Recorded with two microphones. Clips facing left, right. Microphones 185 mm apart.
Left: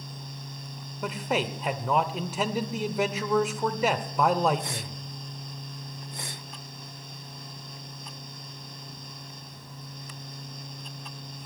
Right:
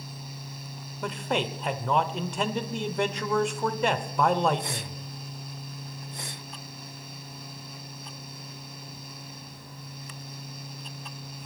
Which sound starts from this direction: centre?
A man speaking, at 1.0 s.